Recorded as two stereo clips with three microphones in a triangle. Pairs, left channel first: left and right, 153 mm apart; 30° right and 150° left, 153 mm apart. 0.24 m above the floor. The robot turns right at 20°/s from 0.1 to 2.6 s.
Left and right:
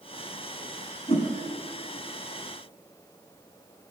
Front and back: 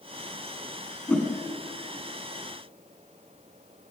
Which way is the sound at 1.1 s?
50° left.